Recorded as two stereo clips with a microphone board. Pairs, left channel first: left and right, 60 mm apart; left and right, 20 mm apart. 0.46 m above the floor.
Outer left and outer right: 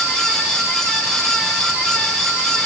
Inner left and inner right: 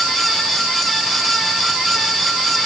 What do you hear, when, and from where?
Only background noise.